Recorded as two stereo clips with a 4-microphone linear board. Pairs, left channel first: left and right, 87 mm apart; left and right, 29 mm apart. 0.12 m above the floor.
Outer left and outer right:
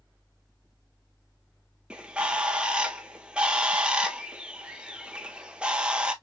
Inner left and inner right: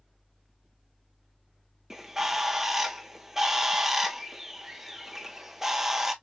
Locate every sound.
1.9 s a bird: 10° right (ahead or behind), 0.8 m